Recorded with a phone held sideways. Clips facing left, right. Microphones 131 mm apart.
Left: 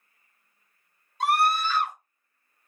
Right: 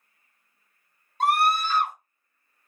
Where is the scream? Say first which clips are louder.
Right 1 dB; 50° right (ahead or behind), 1.2 m.